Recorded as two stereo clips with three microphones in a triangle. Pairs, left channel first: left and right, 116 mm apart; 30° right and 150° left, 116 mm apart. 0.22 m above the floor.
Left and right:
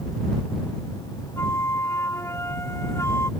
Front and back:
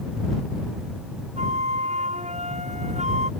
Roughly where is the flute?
Behind left.